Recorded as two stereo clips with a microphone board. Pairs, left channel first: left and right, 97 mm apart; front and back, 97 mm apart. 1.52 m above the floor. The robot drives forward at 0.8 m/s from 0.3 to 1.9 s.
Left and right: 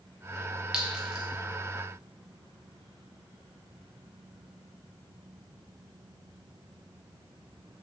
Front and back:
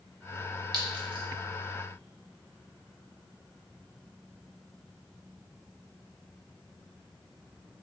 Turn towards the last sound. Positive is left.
turn(degrees=-175)